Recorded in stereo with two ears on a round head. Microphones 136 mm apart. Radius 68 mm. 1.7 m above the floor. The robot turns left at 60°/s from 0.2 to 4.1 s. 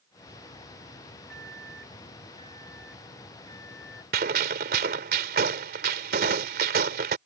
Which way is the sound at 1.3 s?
95° left.